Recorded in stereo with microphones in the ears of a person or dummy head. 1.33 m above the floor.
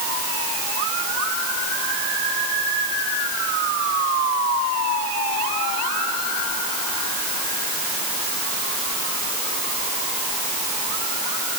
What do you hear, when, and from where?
Only background noise.